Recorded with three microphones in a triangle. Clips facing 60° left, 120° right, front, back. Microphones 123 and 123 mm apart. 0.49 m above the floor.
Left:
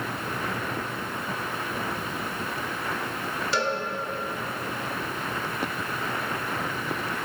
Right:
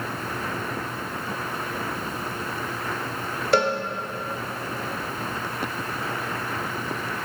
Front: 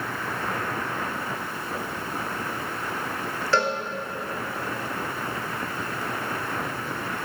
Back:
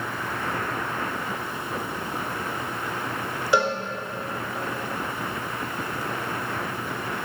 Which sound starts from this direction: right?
A cowbell, at 3.5 s.